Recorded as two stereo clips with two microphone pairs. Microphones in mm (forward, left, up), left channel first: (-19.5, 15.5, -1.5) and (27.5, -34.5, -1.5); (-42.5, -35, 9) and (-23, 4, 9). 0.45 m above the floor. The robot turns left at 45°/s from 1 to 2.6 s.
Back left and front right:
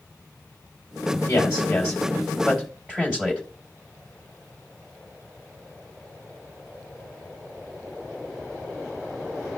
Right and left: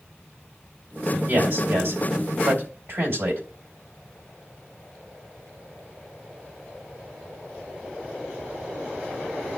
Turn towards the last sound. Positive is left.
turn(degrees=25)